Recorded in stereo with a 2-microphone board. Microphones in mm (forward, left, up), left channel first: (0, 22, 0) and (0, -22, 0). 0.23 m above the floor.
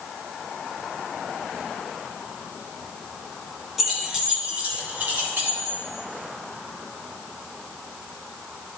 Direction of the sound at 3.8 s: 5° right (ahead or behind).